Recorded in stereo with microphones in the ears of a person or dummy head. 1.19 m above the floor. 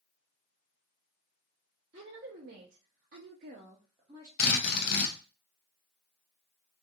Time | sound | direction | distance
1.9 | a woman speaking | 40° right (ahead or behind) | 0.9 m
4.4 | a drill | 60° left (ahead or behind) | 0.6 m